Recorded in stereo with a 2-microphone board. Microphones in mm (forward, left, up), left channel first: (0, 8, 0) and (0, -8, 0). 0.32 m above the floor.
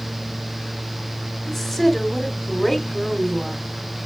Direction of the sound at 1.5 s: 20° left (ahead or behind).